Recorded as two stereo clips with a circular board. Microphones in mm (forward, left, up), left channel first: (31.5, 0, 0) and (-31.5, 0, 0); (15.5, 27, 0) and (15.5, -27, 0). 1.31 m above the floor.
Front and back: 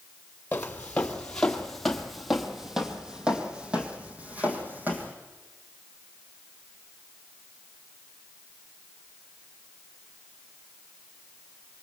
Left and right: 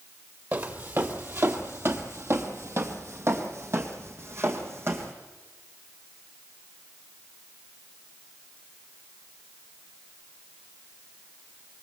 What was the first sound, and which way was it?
Footsteps, 55° right.